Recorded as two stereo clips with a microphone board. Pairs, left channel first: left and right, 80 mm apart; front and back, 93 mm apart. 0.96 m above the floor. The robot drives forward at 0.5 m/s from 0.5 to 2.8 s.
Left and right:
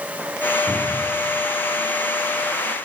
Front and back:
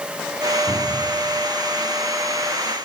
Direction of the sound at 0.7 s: 55° right.